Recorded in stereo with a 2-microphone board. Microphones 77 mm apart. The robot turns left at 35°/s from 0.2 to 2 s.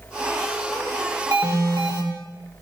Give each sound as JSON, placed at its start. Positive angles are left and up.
{"t": 1.3, "sound": "an alarm", "side_deg": -45, "distance_m": 9.0}